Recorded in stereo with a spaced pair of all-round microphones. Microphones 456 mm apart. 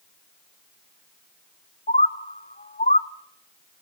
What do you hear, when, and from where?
1.9 s a bird: 20° left (ahead or behind), 0.6 m